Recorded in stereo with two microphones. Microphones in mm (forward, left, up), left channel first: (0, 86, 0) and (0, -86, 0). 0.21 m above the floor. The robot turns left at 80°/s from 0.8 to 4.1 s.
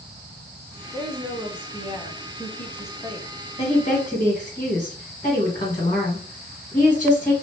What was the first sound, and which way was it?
A woman speaking, 25° right (ahead or behind).